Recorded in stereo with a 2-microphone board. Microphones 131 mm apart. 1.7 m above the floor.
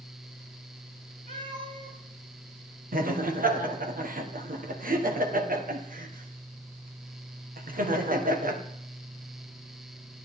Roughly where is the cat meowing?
Right.